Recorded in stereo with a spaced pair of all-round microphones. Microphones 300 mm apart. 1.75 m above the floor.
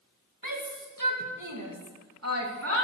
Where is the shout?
80° right, 2 m; by 2.9 s 45° right (ahead or behind), 3.5 m.